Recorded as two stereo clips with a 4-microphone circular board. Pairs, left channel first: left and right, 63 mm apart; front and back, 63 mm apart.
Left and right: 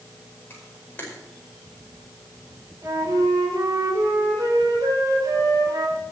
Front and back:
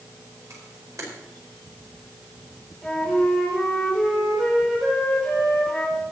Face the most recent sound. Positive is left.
turn(degrees=-80)